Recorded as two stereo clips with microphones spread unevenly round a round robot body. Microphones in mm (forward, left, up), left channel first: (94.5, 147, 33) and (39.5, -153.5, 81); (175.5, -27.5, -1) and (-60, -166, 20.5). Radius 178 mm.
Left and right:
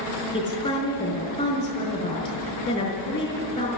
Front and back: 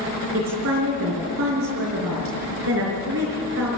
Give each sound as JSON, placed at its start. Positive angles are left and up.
{"t": 0.3, "sound": "a woman speaking", "azimuth_deg": 155, "distance_m": 5.0}